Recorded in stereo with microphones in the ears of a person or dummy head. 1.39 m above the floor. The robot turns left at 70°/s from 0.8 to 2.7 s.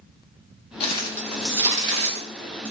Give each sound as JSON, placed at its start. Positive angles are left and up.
{"t": 0.8, "sound": "crumpling", "side_deg": 40, "distance_m": 1.0}